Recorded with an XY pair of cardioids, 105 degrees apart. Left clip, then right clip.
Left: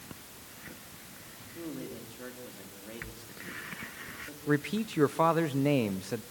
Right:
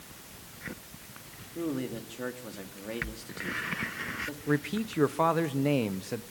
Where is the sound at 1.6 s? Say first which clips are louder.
Right 7 dB; 50° right, 3.5 m.